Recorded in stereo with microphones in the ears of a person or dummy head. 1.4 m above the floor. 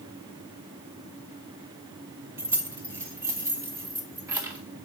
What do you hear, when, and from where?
2.4 s keys jangling: 20° right (ahead or behind), 1.3 m